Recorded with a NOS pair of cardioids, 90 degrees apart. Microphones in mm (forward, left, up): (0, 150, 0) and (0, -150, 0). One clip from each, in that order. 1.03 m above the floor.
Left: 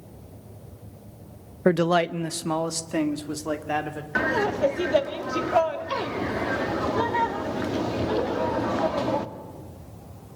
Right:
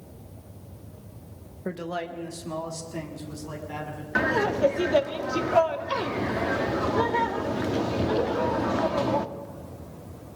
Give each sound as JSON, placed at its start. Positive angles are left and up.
{"t": 1.6, "sound": "a man speaking", "azimuth_deg": 60, "distance_m": 0.6}
{"t": 4.2, "sound": "laughter", "azimuth_deg": 0, "distance_m": 1.6}